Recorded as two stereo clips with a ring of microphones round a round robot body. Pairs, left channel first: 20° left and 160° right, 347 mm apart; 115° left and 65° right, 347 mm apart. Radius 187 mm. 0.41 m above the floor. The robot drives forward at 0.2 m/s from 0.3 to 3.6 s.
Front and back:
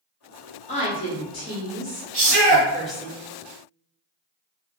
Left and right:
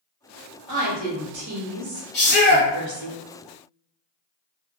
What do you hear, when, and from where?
0.7 s a woman speaking: 45° right, 1.3 m; by 3.1 s 70° right, 1.1 m
2.1 s a shout: 170° left, 1.5 m